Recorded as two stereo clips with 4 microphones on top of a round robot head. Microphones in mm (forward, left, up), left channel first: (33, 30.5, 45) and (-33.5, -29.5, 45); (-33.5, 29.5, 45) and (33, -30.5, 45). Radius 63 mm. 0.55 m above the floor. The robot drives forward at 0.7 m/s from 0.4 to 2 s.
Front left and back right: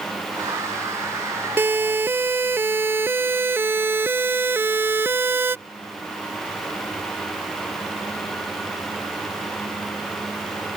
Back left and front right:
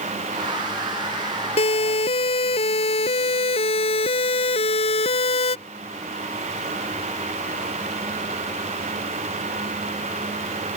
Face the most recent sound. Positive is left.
turn(degrees=155)